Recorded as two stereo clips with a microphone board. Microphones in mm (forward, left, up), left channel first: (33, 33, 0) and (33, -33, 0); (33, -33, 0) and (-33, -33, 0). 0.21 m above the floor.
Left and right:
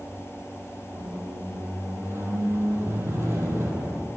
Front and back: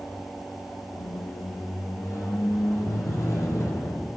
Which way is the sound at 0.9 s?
40° right.